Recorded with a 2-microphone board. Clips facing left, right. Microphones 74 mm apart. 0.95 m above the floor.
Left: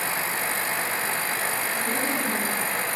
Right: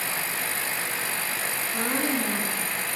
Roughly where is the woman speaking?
Right.